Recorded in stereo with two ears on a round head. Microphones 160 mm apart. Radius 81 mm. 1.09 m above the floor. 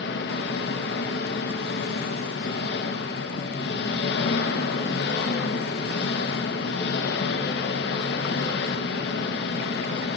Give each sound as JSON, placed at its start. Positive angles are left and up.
{"t": 0.0, "sound": "an engine running", "side_deg": 60, "distance_m": 1.0}